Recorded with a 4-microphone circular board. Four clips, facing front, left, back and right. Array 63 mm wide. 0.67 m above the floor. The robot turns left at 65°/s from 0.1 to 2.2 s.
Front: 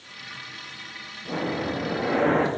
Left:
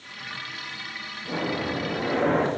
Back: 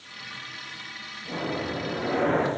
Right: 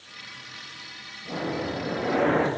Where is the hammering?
No hammering in this recording.